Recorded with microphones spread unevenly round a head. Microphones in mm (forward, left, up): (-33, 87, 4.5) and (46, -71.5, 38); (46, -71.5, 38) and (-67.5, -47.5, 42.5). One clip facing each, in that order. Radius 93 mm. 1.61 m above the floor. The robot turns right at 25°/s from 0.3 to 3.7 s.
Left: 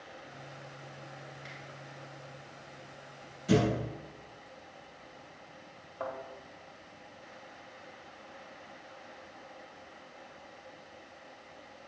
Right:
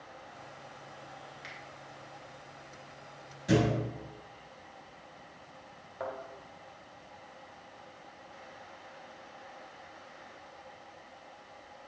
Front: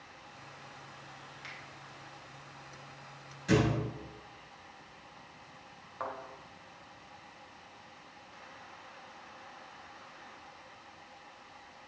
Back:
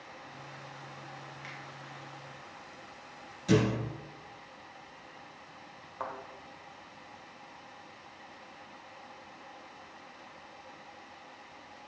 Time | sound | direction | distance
1.4 | a finger snap | 80° right | 2.5 m
3.5 | a thud | 115° right | 2.5 m
6.0 | a thud | 115° right | 1.6 m